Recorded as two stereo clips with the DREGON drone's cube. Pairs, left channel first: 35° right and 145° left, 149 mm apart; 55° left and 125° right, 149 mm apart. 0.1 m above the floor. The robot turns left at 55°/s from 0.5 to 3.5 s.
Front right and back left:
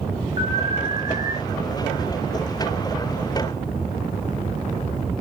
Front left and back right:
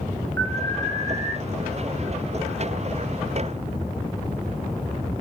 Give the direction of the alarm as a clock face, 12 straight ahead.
12 o'clock.